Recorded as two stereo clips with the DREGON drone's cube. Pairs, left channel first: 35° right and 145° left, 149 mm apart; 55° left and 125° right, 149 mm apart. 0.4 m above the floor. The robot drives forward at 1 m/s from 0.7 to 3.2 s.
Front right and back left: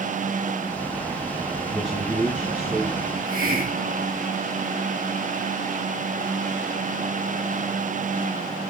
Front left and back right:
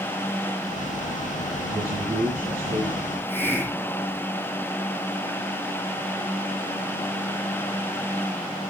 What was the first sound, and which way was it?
A man speaking, 130° right.